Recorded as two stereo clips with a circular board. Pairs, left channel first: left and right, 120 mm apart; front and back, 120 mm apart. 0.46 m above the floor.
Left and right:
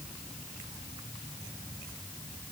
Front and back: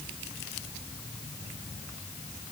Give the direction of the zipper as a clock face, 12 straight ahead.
No zipper in this recording.